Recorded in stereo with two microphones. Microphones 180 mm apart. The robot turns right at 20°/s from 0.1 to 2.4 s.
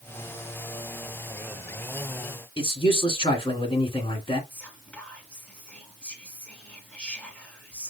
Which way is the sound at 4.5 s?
5° left (ahead or behind).